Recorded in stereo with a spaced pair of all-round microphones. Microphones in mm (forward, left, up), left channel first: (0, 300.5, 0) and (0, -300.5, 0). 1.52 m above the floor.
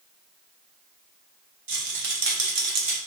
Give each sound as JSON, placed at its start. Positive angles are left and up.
{"t": 1.7, "sound": "a rattle", "side_deg": -60, "distance_m": 0.8}